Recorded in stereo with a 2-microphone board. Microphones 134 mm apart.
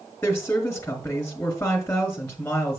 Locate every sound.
0.2 s a woman speaking: 10° left (ahead or behind), 1.9 m